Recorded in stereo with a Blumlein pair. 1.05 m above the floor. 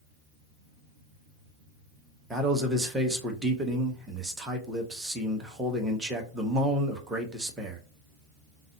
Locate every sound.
2.3 s a man speaking: 10° right, 1.1 m